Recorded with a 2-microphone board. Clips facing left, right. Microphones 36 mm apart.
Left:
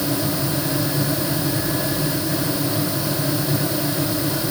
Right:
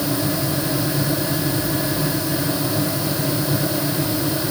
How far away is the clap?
No clap in this recording.